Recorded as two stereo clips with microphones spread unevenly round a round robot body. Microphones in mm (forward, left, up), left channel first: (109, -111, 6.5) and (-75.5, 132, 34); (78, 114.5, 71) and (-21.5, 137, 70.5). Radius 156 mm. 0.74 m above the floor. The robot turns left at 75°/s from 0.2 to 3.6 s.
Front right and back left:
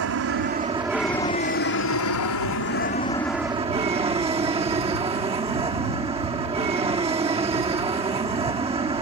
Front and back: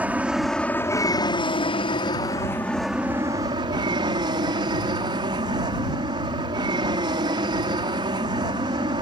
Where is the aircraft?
95° left; by 9.0 s 160° right.